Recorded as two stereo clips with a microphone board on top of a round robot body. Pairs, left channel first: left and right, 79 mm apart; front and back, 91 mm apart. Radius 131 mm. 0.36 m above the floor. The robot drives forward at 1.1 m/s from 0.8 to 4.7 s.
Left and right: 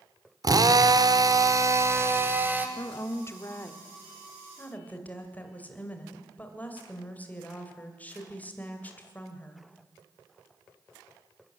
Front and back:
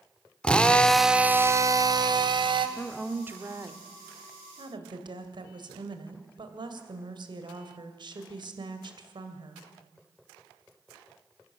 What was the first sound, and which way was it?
A drill, 75° right.